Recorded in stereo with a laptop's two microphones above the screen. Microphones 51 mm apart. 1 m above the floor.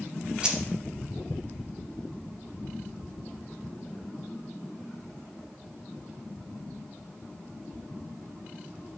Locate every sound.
0.4 s keys jangling: 15° right (ahead or behind), 0.6 m